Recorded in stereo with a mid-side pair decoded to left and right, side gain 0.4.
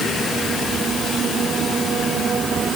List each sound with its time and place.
Only background noise.